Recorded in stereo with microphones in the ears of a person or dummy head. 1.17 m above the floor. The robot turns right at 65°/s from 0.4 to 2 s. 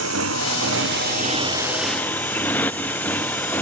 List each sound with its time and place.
0.0 s a motorcycle: 95° right; by 3.6 s 10° left